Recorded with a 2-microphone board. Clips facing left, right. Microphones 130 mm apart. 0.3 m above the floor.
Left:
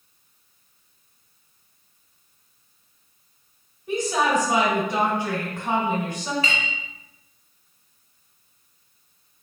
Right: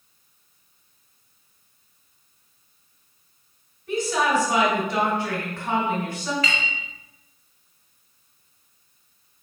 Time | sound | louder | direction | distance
3.9 | a woman speaking | even | 20° left (ahead or behind) | 1.6 m
6.4 | a clink | even | 25° left (ahead or behind) | 1.3 m